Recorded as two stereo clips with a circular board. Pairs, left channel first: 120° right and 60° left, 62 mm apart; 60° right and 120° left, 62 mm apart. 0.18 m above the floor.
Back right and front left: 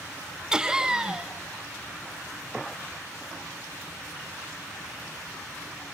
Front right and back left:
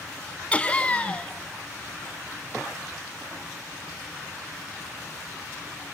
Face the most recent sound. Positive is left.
turn(degrees=-10)